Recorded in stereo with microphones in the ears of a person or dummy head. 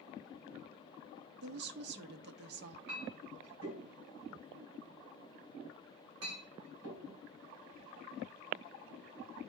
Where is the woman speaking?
50° right (ahead or behind), 0.9 m.